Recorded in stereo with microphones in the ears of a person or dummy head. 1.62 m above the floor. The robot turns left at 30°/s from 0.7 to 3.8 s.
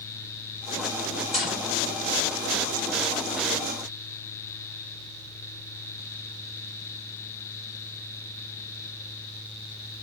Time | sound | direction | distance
1.3 | a gunshot | 5° left (ahead or behind) | 1.4 m